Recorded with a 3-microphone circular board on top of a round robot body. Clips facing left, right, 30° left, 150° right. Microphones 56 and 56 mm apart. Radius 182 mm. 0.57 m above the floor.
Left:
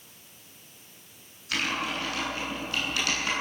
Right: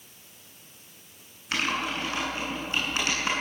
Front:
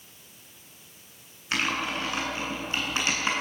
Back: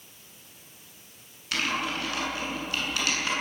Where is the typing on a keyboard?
25° right, 8 m.